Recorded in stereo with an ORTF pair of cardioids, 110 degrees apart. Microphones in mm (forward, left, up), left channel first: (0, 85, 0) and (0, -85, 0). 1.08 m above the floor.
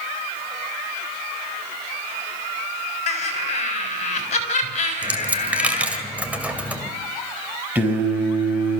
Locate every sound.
3.1 s laughter: 40° left, 6 m
5.0 s a dropped coin: 10° right, 2 m
7.8 s singing: 10° right, 5.5 m